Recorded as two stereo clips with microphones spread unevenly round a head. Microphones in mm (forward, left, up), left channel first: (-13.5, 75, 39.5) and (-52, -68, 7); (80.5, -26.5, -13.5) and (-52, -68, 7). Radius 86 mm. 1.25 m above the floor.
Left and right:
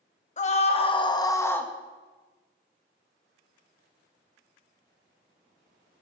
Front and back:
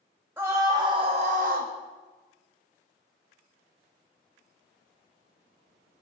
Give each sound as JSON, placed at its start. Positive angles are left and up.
{"t": 0.4, "sound": "a scream", "azimuth_deg": 120, "distance_m": 2.0}